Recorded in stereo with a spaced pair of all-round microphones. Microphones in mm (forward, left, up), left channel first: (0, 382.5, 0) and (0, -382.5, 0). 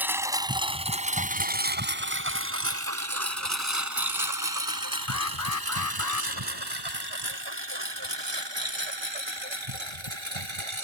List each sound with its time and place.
0.0 s a lawn mower: centre (ahead or behind); by 10.8 s 40° right (ahead or behind)
5.1 s an alarm: 25° left (ahead or behind)